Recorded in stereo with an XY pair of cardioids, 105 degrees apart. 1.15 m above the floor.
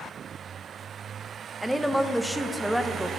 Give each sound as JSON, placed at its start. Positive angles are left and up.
{"t": 1.6, "sound": "a woman speaking", "azimuth_deg": -5, "distance_m": 0.9}